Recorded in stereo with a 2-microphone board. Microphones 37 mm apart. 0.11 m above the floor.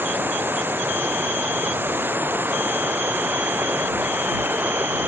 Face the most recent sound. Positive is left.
turn(degrees=-65)  # may be behind; listen again after turning